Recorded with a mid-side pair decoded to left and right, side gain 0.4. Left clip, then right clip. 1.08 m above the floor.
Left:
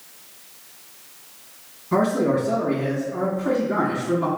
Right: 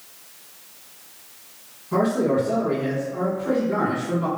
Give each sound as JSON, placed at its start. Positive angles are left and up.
{"t": 1.9, "sound": "a man speaking", "azimuth_deg": 65, "distance_m": 1.2}